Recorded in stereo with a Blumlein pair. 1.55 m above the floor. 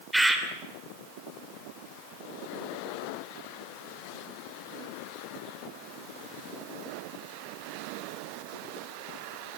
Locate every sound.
0.1 s a bird: 5° right, 3 m